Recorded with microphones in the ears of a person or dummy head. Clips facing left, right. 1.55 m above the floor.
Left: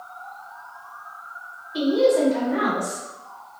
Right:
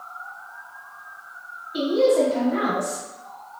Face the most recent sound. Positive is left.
turn(degrees=-25)  # may be behind; listen again after turning